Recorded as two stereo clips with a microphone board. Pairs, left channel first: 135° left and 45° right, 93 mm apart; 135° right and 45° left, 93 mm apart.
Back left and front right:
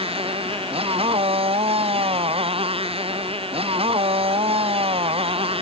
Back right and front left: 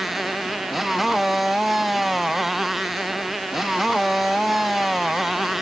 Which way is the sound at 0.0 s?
45° right.